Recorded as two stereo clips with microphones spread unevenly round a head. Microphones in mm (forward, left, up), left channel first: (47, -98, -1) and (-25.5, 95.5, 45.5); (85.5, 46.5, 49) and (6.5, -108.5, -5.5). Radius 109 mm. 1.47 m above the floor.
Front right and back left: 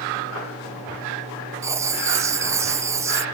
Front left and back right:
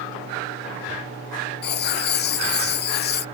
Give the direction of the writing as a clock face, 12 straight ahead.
11 o'clock.